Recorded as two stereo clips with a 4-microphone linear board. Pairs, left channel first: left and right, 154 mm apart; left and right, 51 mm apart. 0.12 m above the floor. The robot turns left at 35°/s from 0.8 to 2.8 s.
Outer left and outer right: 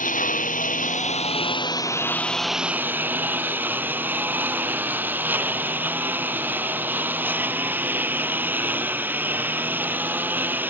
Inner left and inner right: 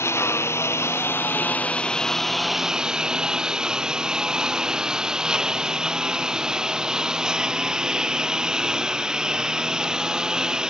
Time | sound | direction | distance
0.0 | a lawn mower | 60° left | ?